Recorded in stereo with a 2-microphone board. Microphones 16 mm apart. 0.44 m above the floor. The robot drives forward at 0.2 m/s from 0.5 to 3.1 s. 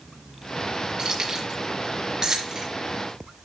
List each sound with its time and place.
1.0 s keys jangling: 60° right (ahead or behind), 4.5 m; by 2.7 s 55° right (ahead or behind), 4.5 m